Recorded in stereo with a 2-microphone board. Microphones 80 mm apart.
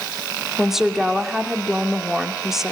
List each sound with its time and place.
0.6 s a woman speaking: 5° right (ahead or behind), 2.5 m